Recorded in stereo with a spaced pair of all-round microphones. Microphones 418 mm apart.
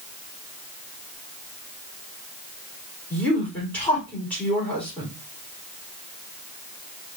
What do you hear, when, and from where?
3.1 s a woman speaking: 5° left (ahead or behind), 3.5 m